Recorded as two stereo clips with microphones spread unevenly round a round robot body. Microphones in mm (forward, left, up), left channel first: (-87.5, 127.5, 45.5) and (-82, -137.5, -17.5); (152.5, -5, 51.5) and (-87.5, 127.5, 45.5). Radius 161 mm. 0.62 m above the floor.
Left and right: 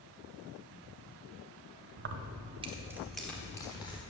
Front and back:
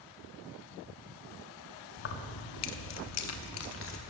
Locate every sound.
2.0 s keys jangling: 70° right, 0.7 m; by 4.0 s 15° left, 1.3 m